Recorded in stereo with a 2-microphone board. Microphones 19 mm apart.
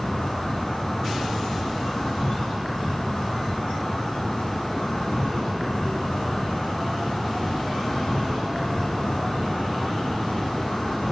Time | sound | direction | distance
0.0 | an insect | 65° left (ahead or behind) | 1.5 m